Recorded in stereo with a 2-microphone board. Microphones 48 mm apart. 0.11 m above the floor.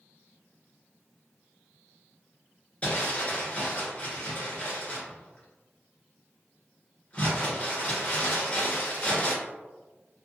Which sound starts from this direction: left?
Crumpling, at 2.8 s.